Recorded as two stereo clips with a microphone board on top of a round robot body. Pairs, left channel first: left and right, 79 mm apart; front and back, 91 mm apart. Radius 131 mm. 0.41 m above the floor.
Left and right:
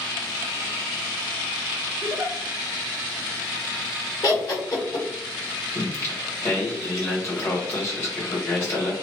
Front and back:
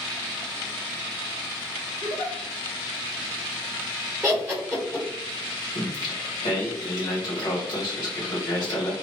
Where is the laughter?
105° left, 1.5 m.